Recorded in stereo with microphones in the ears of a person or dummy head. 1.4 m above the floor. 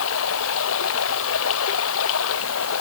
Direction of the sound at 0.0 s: 75° left (ahead or behind).